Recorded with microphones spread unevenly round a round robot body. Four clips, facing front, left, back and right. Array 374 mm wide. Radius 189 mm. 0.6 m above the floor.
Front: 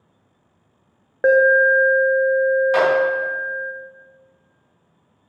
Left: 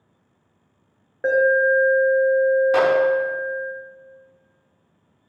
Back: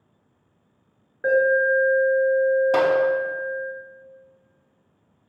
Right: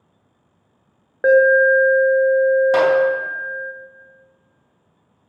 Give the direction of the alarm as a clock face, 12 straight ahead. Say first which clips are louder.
Right 5 dB, front 5 dB; 1 o'clock.